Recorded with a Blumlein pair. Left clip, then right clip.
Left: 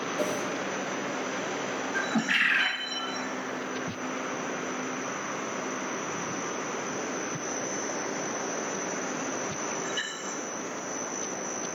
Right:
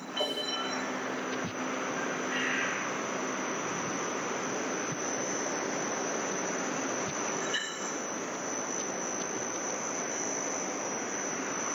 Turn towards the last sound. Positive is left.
turn(degrees=50)